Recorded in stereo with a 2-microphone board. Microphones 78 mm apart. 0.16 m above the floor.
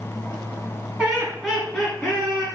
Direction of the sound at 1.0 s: 15° right (ahead or behind).